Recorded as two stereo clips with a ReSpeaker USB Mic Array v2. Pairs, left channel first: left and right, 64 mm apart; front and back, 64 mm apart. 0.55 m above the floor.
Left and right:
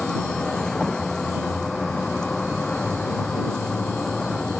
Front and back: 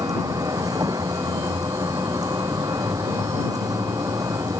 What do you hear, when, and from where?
0.0 s a vehicle: 170° left; by 4.6 s 165° left